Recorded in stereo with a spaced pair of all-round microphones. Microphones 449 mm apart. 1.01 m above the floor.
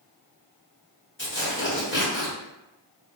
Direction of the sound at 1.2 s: 25° left (ahead or behind).